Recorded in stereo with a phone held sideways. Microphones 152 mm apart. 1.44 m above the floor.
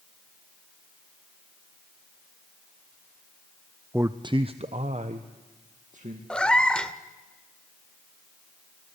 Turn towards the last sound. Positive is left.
turn(degrees=5)  # may be behind; listen again after turning